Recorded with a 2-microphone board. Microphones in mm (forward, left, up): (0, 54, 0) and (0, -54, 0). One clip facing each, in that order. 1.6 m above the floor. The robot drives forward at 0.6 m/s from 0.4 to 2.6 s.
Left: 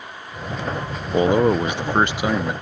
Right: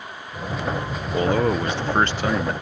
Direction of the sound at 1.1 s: 20° left (ahead or behind).